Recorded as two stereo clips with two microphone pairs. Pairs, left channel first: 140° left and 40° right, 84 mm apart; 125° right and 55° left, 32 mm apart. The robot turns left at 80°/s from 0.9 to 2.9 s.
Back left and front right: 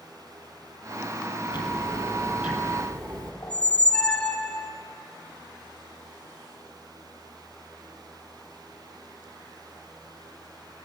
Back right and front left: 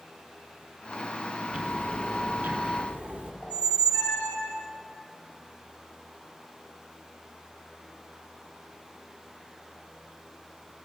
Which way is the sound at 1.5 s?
110° left.